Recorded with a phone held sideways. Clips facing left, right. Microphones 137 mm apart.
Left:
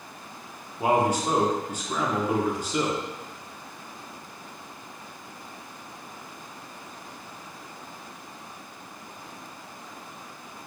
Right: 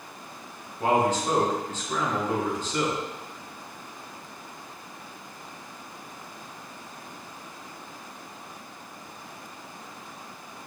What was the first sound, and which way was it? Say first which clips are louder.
A man speaking: even; 10° left (ahead or behind).